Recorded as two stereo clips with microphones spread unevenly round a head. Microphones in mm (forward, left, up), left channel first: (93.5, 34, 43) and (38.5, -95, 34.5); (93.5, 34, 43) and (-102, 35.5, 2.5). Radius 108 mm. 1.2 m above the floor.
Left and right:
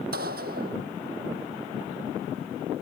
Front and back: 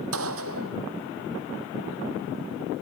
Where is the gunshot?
155° right.